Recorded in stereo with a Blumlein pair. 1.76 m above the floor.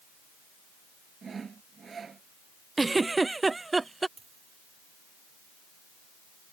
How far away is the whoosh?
I don't hear a whoosh.